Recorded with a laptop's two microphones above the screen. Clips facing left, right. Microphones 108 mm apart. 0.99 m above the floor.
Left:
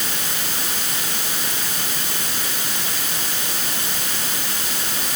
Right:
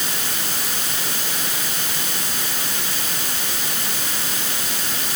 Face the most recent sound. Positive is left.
No sound to turn to.